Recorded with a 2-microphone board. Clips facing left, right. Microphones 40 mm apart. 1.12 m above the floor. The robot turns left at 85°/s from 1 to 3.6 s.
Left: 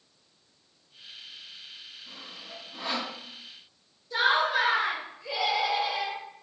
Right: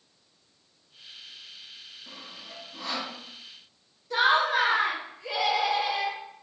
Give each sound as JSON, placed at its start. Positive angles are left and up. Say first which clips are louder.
{"t": 2.1, "sound": "sawing", "louder": "even", "side_deg": -25, "distance_m": 0.8}
{"t": 4.1, "sound": "laughter", "louder": "right 2 dB", "side_deg": -75, "distance_m": 1.8}